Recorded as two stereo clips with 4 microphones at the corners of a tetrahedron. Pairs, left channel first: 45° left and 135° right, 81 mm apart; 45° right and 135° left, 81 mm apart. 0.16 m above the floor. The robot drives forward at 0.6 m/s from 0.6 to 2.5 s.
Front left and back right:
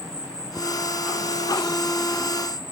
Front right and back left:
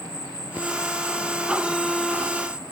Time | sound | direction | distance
0.0 | an insect | 130° left | 6.5 m